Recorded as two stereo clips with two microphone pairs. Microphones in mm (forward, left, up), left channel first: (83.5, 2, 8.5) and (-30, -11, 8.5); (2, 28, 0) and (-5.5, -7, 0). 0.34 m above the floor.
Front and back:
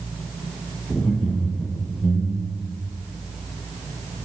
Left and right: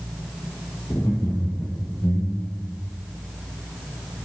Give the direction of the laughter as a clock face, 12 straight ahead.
9 o'clock.